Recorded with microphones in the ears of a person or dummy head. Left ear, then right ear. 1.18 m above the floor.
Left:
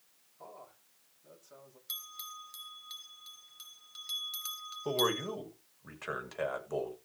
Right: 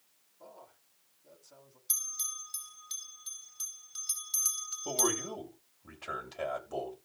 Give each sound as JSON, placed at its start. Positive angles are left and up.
{"t": 0.4, "sound": "a man speaking", "side_deg": 55, "distance_m": 6.0}
{"t": 1.9, "sound": "a bell", "side_deg": 5, "distance_m": 3.5}
{"t": 4.8, "sound": "a man speaking", "side_deg": 60, "distance_m": 7.0}